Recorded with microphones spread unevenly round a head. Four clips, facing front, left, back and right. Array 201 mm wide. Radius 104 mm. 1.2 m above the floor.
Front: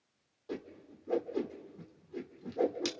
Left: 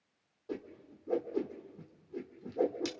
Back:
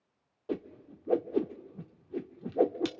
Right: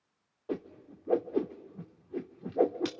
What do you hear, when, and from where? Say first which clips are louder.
0.5 s a whoosh: right 5 dB, back 6 dB; 135° right, 0.9 m